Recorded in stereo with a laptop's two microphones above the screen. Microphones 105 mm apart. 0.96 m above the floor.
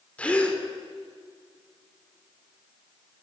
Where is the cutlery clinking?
No cutlery clinking in this recording.